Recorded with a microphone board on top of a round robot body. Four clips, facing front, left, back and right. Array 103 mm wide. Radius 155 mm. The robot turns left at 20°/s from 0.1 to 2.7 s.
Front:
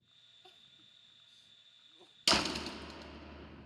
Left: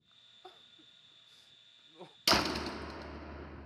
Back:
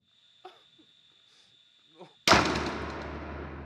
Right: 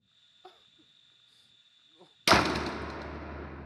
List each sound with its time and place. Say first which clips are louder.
0.4 s crying: right 1 dB, back 14 dB; 175° right; by 2.2 s 150° left
2.3 s a door slam: right 7 dB, back 11 dB; 145° right; by 3.7 s 155° right